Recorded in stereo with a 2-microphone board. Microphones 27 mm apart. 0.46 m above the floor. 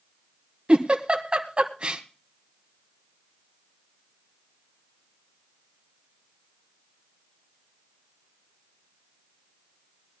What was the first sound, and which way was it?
A giggle, 40° right (ahead or behind).